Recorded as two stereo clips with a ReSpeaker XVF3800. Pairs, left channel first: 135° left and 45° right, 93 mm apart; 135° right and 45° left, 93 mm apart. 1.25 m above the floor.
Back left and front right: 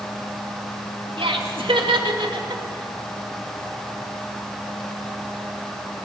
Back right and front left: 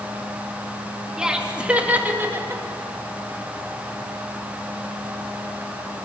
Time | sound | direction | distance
1.2 | laughter | 40° right | 2.5 m